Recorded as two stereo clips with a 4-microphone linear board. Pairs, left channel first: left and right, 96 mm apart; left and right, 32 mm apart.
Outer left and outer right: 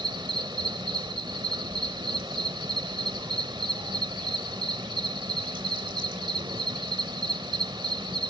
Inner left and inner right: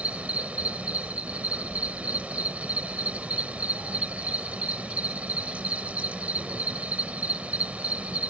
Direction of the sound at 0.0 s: 55° right (ahead or behind).